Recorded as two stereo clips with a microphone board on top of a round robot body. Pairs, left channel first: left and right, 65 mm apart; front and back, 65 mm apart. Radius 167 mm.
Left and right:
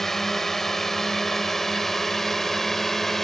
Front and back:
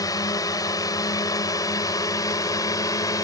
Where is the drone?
5° left.